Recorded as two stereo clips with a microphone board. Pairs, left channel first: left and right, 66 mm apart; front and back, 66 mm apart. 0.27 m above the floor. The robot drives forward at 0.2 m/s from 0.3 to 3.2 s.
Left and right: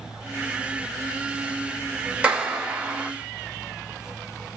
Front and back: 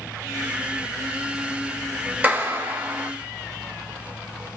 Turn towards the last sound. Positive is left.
turn(degrees=-155)